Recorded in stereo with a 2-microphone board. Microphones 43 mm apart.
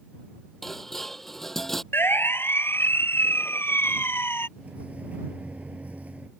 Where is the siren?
75° left (ahead or behind); by 4.5 s 85° left.